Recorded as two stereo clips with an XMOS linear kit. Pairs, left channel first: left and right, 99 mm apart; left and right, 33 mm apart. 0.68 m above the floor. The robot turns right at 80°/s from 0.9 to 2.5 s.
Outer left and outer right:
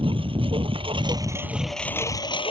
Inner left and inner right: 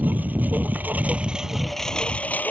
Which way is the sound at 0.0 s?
65° right.